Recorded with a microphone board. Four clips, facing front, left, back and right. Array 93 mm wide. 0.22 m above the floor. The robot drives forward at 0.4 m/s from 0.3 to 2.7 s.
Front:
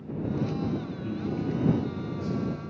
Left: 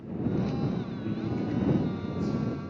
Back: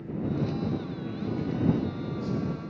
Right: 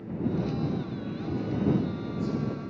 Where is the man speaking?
25° left, 2.5 m; by 2.6 s 35° left, 2 m.